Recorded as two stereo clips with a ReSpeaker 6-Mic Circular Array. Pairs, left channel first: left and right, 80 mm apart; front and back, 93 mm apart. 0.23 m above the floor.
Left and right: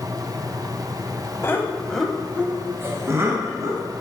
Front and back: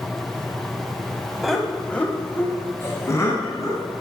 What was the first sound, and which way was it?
Laughter, 95° left.